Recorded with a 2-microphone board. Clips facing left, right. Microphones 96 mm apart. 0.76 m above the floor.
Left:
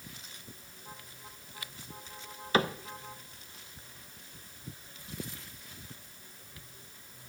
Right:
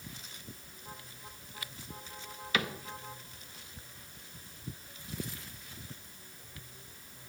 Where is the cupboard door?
35° left (ahead or behind), 0.6 m.